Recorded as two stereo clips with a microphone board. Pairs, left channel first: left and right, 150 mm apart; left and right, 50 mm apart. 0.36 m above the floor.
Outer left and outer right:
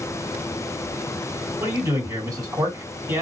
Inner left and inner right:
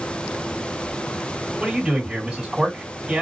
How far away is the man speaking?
About 2 m.